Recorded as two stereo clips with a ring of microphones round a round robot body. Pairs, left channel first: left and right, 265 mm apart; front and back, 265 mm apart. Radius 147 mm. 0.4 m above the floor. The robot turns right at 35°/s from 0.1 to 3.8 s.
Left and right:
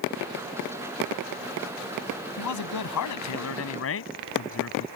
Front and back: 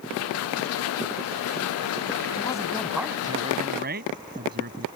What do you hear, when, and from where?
2.4 s a man speaking: 70° left; by 4.9 s 120° left